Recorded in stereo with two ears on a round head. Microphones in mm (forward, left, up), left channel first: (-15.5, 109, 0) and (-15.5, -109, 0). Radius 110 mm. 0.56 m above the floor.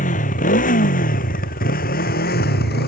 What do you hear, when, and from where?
0.0 s a motorcycle: 30° left (ahead or behind); by 2.9 s 40° left (ahead or behind)